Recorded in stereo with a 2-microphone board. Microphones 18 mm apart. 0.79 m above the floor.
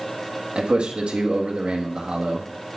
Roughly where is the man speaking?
Right.